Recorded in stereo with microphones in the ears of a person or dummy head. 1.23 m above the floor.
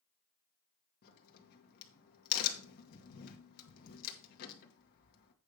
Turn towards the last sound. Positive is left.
turn(degrees=60)  # may be behind; listen again after turning